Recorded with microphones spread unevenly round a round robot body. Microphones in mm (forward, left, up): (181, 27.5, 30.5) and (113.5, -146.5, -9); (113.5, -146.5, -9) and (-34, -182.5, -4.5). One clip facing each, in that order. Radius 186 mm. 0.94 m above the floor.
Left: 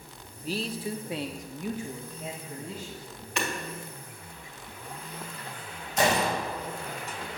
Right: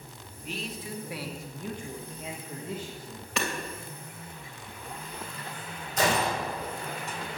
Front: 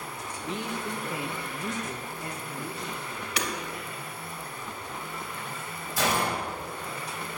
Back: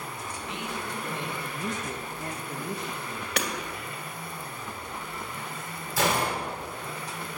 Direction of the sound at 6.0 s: Straight behind.